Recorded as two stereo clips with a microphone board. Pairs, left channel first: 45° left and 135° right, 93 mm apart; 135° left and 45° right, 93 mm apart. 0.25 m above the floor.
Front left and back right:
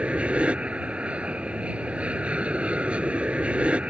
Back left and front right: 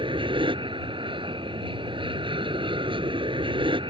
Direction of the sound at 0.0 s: 60° right.